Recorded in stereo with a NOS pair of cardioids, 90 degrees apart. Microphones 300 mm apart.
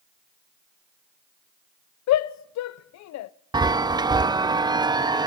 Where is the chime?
15° right, 0.7 m.